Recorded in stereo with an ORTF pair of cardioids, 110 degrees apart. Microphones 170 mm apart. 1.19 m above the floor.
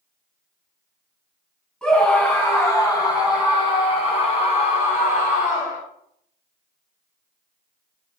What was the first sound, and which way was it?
A scream, 5° left.